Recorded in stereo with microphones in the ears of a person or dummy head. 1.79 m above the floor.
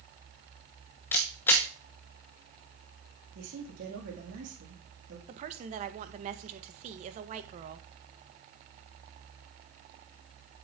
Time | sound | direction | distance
1.1 | a camera shutter | 10° left (ahead or behind) | 0.9 m
3.4 | a man speaking | 60° right (ahead or behind) | 3 m
5.3 | a woman speaking | 40° right (ahead or behind) | 1.5 m